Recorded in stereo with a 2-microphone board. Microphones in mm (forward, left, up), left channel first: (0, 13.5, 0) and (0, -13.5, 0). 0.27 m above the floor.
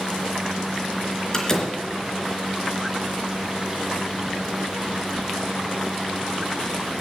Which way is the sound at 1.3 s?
20° left (ahead or behind).